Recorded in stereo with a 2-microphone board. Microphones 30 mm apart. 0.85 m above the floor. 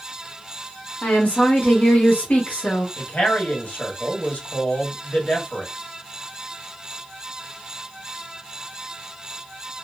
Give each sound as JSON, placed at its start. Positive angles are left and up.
{"t": 1.0, "sound": "a woman speaking", "side_deg": 55, "distance_m": 1.1}
{"t": 3.0, "sound": "a man speaking", "side_deg": 75, "distance_m": 1.4}